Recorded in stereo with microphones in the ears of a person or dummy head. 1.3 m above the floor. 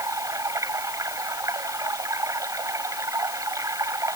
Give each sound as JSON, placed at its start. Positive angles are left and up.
{"t": 0.0, "sound": "running water", "side_deg": -20}